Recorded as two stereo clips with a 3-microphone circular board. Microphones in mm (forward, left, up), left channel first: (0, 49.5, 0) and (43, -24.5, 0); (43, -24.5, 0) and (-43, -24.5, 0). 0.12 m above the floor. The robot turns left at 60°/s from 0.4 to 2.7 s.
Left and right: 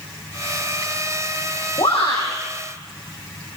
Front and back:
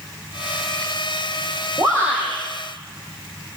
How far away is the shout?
About 6.5 m.